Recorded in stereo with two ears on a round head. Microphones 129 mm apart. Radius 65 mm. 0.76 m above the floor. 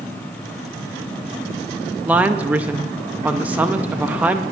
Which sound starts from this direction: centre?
A woman speaking, at 2.0 s.